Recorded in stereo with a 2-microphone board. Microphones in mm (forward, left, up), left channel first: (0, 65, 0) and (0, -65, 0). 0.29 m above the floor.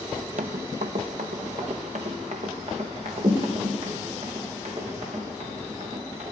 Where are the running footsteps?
70° right (ahead or behind), 0.5 m; by 6.3 s 55° right (ahead or behind), 6 m.